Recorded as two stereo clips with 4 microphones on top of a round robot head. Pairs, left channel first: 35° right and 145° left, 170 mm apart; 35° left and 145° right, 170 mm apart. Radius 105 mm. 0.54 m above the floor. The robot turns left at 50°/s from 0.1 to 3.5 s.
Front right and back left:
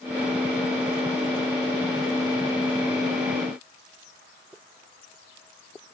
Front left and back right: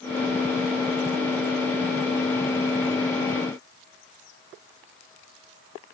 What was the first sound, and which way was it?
Only background noise.